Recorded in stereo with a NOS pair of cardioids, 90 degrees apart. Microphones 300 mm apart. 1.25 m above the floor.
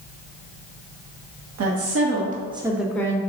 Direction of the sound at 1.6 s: 60° right.